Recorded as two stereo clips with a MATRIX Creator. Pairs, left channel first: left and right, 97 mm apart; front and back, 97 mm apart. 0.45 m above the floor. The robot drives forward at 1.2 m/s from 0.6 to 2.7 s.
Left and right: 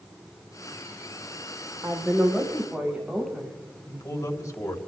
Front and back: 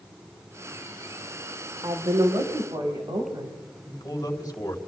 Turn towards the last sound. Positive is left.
turn(degrees=40)